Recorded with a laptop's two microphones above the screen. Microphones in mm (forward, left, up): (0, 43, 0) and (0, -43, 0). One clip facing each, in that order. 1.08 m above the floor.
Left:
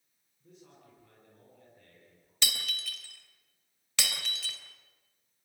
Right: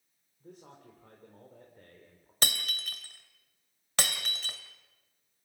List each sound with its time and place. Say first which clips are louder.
0.4 s a man speaking: right 5 dB; 60° right (ahead or behind), 3.5 m
2.4 s breaking glass: right 2 dB; 45° right (ahead or behind), 2.5 m